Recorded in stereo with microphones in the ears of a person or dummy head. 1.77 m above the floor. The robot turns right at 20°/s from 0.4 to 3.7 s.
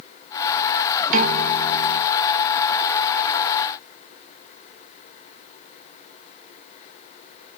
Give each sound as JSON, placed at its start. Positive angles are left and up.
{"t": 1.1, "sound": "a piano", "side_deg": -50, "distance_m": 0.6}